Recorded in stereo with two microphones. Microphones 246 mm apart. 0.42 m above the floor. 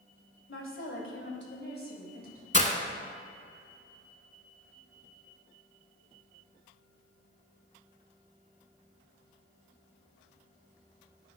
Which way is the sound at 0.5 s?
55° left (ahead or behind).